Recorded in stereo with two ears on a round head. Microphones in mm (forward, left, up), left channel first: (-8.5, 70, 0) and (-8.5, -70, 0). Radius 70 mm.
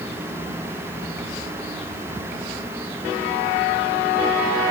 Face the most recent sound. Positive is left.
No sound to turn to.